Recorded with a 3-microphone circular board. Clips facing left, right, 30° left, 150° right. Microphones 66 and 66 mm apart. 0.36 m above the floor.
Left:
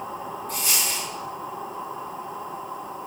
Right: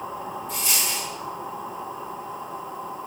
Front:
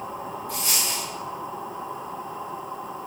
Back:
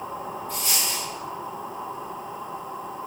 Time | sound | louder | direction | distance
0.5 | a dropped coin | left 1 dB, front 1 dB | 55° left | 4.5 m